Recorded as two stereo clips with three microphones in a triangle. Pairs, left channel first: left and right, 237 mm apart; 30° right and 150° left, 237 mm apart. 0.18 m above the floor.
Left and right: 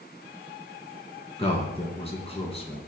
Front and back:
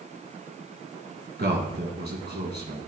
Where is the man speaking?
145° left, 1.4 m.